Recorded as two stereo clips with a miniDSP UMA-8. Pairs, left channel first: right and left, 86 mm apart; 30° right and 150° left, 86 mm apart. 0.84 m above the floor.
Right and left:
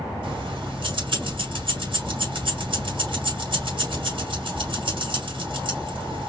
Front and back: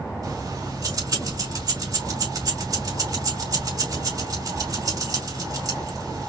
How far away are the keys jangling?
About 4 m.